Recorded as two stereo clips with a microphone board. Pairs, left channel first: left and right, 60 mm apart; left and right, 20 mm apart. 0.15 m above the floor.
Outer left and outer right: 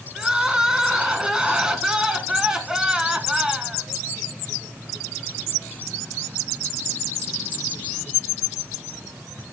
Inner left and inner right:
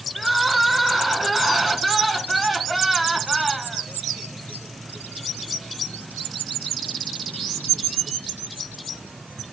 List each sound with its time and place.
0.1 s crying: 10° right (ahead or behind), 1.2 m